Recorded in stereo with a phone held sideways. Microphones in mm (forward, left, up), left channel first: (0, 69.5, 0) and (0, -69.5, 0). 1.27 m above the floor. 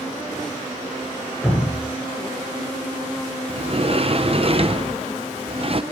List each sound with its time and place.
1.4 s dripping: centre (ahead or behind), 6 m
3.5 s a sliding door: 45° right (ahead or behind), 0.7 m